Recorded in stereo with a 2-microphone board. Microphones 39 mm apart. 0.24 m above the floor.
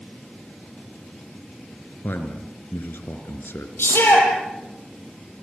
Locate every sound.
2.0 s a man speaking: 70° left (ahead or behind), 3.5 m
3.8 s a shout: 80° left, 8.5 m